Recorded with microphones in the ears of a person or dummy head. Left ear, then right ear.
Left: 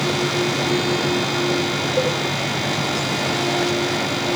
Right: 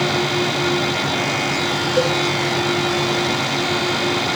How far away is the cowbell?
About 7.5 m.